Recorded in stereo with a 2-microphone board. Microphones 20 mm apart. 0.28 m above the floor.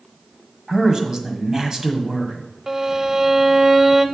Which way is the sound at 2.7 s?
25° right (ahead or behind).